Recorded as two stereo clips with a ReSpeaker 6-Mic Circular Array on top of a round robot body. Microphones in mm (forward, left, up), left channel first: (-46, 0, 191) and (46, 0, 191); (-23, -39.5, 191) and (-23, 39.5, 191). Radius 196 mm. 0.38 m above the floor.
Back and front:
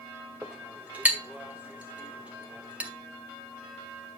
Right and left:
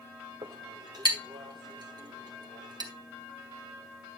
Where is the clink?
75° left, 1.8 m.